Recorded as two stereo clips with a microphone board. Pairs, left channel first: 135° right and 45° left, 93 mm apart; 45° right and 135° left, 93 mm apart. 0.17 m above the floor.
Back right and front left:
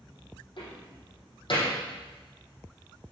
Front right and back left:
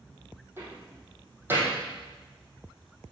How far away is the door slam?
About 5 m.